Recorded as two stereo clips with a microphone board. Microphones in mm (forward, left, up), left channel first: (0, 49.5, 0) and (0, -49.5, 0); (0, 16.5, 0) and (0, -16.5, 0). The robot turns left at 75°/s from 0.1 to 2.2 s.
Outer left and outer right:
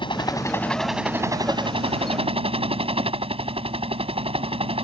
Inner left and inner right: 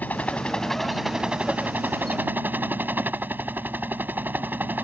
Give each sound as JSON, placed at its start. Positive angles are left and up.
{"t": 0.0, "sound": "a helicopter", "azimuth_deg": 55}